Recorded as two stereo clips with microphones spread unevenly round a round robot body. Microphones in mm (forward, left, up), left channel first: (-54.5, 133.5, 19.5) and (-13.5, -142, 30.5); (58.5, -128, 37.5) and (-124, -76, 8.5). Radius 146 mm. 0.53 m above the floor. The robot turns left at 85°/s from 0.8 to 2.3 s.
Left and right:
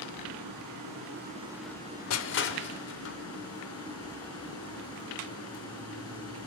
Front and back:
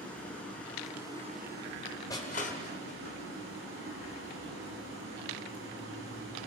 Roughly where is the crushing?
Ahead left.